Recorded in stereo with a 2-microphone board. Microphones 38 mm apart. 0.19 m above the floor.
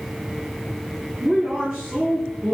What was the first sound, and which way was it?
A woman speaking, 10° right (ahead or behind).